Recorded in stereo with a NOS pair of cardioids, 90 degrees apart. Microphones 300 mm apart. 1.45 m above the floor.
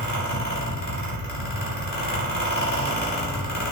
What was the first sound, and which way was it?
A fan, 35° left.